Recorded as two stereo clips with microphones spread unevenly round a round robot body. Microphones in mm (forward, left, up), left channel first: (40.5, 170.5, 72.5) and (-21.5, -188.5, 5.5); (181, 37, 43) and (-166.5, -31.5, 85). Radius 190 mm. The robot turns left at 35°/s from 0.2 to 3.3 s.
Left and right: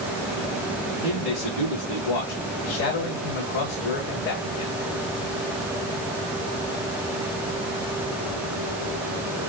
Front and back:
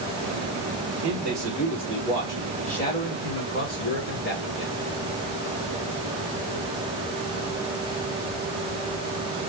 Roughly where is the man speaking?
Behind left.